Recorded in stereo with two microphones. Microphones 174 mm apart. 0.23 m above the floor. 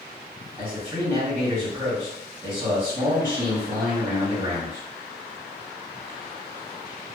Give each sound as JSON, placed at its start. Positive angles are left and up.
{"t": 0.6, "sound": "a man speaking", "side_deg": -10, "distance_m": 1.6}